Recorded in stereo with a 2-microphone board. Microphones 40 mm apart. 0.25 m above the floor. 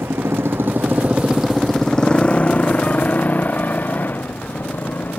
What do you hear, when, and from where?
0.0 s a motorcycle: 85° right; by 5.2 s 50° left (ahead or behind)